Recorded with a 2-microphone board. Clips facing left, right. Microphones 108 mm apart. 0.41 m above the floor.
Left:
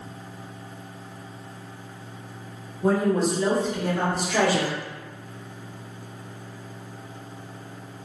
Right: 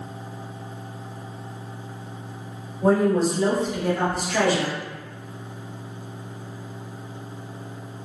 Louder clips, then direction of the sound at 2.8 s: Right 3 dB; 40° right (ahead or behind).